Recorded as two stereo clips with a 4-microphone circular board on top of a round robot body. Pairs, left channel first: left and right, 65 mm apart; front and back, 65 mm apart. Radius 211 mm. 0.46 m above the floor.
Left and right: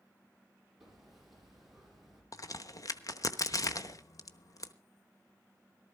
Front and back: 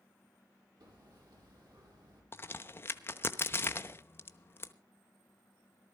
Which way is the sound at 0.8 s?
175° right.